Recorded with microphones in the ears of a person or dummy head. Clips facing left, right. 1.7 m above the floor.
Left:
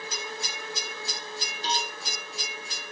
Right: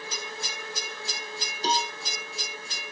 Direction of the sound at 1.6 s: 35° right (ahead or behind).